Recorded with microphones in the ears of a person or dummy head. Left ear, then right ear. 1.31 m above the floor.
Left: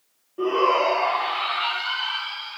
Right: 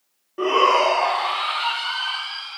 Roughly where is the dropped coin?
No dropped coin in this recording.